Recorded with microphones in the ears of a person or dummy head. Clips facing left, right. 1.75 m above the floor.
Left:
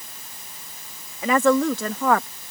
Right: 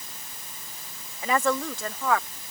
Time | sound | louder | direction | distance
1.2 | a woman speaking | left 7 dB | 60° left (ahead or behind) | ?